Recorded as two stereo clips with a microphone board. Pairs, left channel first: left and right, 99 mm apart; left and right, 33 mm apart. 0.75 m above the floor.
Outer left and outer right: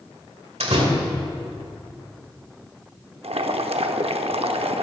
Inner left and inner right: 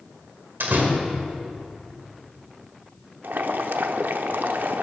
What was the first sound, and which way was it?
A door slam, 85° right.